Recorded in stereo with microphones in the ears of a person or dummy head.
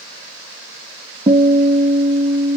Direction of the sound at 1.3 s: 20° right (ahead or behind).